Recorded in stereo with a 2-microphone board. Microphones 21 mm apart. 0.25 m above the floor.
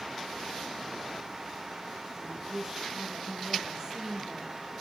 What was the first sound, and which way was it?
A woman speaking, 30° right (ahead or behind).